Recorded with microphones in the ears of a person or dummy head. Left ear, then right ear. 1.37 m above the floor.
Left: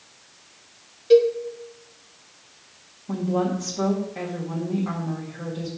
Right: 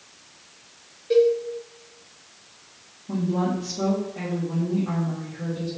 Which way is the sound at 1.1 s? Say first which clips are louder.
Left 2 dB; 40° left (ahead or behind).